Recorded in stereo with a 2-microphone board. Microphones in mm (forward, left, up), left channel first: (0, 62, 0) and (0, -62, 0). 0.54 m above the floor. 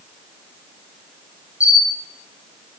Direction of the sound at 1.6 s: 10° right (ahead or behind).